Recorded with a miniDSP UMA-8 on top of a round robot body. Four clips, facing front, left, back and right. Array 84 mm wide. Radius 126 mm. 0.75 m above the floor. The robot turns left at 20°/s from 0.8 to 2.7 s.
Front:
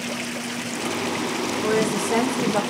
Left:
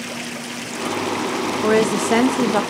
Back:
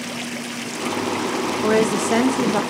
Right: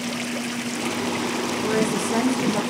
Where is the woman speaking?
125° left, 0.5 m; by 2.6 s 105° left, 0.5 m.